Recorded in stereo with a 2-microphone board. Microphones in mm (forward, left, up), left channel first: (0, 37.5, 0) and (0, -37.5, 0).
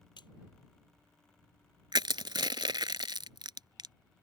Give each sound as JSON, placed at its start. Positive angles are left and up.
{"t": 0.2, "sound": "a splash", "side_deg": 70}
{"t": 1.9, "sound": "crushing", "side_deg": -70}